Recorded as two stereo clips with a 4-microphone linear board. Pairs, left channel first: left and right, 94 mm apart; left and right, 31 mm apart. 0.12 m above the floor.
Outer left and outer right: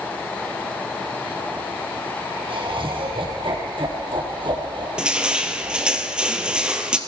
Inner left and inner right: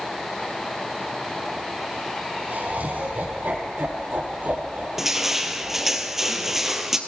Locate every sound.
2.5 s laughter: 65° right (ahead or behind), 4 m; by 6.0 s 50° right (ahead or behind), 2 m
5.0 s crushing: 10° right (ahead or behind), 1.3 m